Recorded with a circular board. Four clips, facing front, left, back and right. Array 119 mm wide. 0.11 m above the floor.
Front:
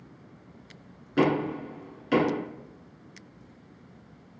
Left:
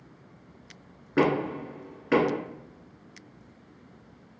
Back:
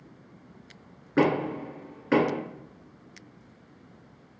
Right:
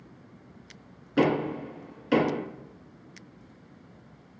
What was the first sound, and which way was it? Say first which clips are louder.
Knocking: even, even; 130° left.